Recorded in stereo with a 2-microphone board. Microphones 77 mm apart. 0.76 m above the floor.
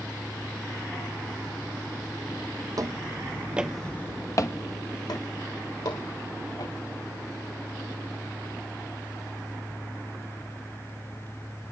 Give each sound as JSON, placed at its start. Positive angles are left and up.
{"t": 2.8, "sound": "footsteps", "side_deg": -55, "distance_m": 1.4}